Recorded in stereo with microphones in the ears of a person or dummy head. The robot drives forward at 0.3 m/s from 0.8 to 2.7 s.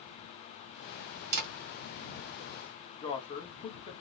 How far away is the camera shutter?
About 0.6 m.